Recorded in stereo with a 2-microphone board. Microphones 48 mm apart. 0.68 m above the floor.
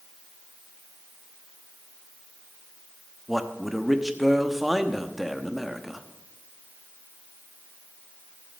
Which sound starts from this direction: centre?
A man speaking, at 3.3 s.